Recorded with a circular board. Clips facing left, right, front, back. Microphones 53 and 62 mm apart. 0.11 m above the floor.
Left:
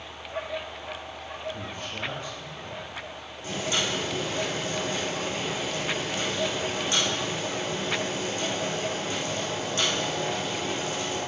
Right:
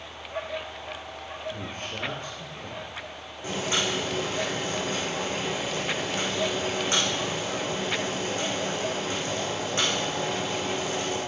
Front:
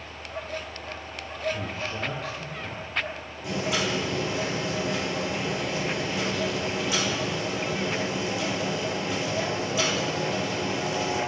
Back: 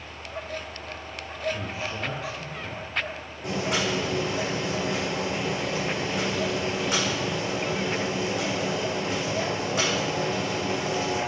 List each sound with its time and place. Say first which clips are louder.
1.5 s a man speaking: even, even; 100° right, 2.5 m
3.4 s boiling: right 1 dB, back 1 dB; 145° right, 3.5 m